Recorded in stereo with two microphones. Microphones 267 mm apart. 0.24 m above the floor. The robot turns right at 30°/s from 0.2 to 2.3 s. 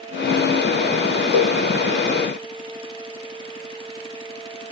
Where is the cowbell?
25° right (ahead or behind), 3 m; by 1.6 s 30° right (ahead or behind), 3 m.